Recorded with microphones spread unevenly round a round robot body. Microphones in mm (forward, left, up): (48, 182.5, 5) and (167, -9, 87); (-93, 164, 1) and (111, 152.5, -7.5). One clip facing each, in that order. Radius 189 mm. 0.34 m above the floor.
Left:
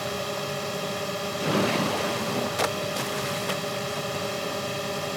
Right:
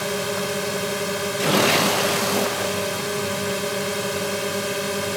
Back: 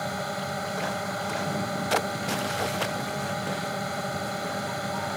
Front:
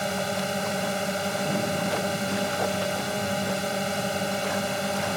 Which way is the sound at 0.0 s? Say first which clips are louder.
Right 6 dB, front 4 dB; 60° right.